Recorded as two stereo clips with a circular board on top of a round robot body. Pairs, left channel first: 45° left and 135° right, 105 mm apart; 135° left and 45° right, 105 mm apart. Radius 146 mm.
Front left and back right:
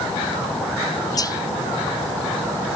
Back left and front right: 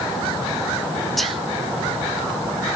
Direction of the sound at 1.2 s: 45° left.